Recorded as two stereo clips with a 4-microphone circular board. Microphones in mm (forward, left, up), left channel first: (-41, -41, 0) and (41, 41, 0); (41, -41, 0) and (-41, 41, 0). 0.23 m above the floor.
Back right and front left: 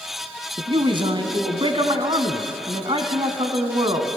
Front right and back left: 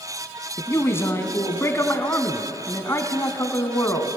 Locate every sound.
0.6 s a man speaking: 15° left, 1.7 m